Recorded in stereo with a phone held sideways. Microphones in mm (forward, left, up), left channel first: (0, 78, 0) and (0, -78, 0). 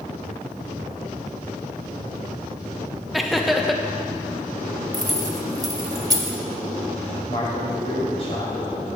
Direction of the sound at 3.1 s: Centre (ahead or behind).